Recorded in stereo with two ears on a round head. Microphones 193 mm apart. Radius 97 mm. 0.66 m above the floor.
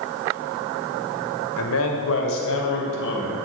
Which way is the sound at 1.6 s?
75° left (ahead or behind).